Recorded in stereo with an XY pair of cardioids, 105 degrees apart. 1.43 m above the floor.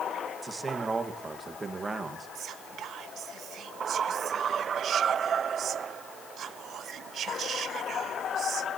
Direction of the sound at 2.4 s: 65° right.